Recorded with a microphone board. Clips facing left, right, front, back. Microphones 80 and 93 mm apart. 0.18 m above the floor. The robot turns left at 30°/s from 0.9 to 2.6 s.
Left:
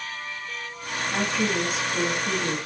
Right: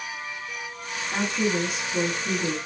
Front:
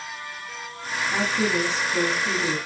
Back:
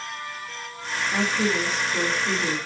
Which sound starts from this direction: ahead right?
A woman speaking, at 1.1 s.